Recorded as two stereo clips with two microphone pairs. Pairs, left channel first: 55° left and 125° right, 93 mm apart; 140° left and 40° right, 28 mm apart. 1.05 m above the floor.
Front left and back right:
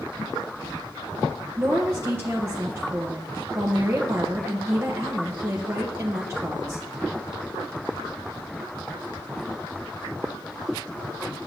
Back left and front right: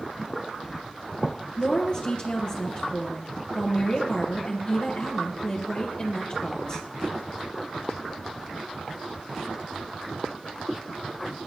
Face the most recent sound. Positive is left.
turn(degrees=180)